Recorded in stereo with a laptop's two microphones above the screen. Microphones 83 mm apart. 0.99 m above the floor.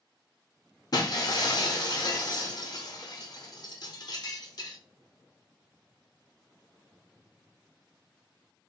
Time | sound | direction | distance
0.9 | breaking glass | 50° left (ahead or behind) | 0.8 m